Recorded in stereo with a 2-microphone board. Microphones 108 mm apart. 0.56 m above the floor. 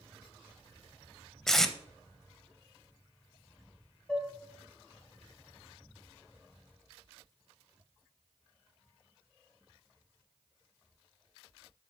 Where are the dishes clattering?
10° left (ahead or behind), 2.5 m.